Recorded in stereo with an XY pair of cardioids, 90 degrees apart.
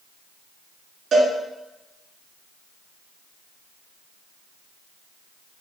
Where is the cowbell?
65° right, 3 m.